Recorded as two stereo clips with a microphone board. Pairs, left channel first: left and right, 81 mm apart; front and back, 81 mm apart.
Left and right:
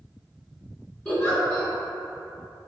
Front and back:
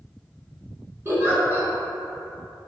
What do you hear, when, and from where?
1.1 s a giggle: 155° left, 1.4 m